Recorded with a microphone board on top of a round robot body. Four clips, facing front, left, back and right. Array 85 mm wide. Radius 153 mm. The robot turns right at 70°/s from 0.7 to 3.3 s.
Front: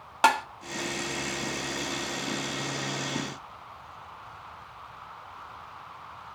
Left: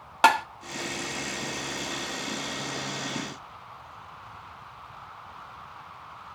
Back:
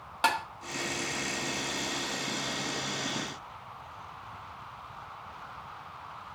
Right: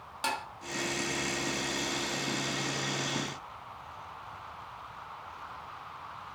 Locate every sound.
0.2 s tapping: 65° left, 1.1 m